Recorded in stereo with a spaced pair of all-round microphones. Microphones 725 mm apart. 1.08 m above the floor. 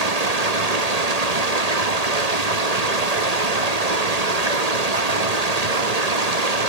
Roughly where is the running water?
Right.